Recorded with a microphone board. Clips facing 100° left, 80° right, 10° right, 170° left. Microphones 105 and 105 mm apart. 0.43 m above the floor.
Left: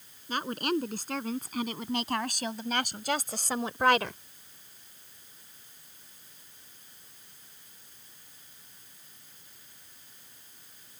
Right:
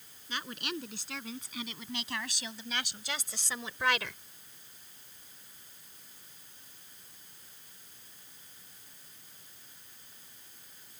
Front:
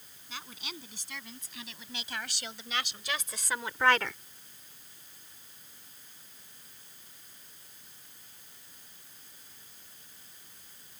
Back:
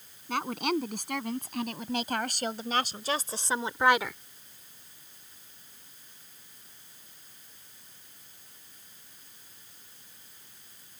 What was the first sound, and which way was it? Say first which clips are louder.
A woman speaking: left 9 dB, back 16 dB; 145° left.